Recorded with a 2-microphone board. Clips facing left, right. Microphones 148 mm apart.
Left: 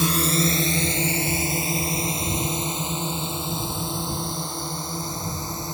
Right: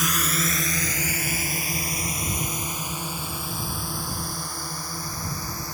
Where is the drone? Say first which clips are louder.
Left 6 dB; 30° left (ahead or behind); by 5.7 s 20° left (ahead or behind).